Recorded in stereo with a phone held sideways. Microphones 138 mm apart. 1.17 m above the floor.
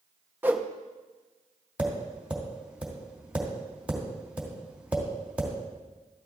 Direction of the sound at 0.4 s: 15° right (ahead or behind).